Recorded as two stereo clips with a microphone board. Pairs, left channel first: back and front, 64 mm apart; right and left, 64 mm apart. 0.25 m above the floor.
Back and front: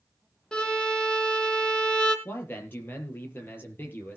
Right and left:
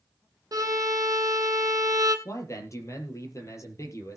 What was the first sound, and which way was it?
A violin, 105° left.